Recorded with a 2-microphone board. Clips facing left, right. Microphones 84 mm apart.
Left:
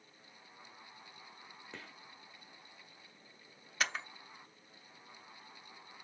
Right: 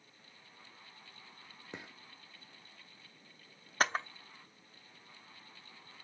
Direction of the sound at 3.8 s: 40° right (ahead or behind).